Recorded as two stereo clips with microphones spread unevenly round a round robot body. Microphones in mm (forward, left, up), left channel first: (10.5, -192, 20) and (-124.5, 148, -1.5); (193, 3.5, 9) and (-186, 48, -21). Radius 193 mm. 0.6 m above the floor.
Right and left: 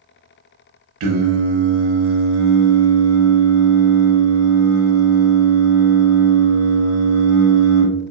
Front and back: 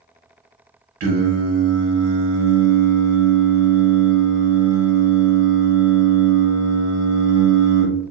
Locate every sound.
1.0 s singing: 140° left, 0.7 m